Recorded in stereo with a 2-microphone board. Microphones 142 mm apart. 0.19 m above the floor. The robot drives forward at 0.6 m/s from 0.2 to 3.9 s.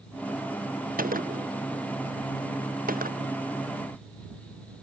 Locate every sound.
1.0 s a gunshot: 80° right; by 3.3 s 85° right